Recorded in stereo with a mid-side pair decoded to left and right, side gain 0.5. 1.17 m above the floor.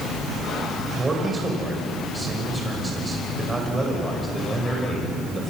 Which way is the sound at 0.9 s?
20° right.